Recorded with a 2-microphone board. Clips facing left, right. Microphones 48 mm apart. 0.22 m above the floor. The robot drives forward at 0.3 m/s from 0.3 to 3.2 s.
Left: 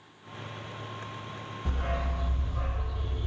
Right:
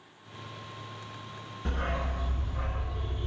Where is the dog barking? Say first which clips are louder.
Right 1 dB; 65° right (ahead or behind), 0.6 m; by 3.3 s 40° right (ahead or behind), 0.9 m.